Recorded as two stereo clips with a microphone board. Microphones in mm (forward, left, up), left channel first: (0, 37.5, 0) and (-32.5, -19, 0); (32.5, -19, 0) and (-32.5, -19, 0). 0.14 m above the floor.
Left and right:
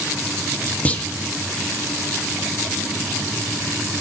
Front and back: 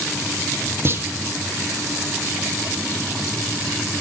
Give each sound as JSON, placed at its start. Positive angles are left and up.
{"t": 0.8, "sound": "a clunk", "azimuth_deg": 130, "distance_m": 1.0}